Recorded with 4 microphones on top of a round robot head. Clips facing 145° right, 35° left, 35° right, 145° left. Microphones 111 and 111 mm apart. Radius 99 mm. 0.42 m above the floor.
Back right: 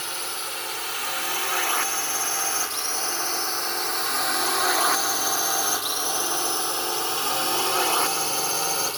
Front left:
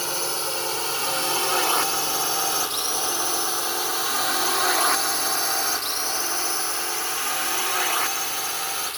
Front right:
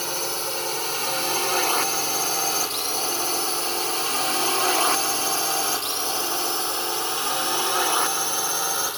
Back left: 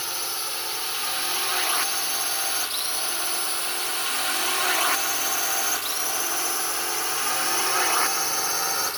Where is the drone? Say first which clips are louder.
Front left 6 dB, front right 6 dB; 5° right; by 9.0 s 110° right.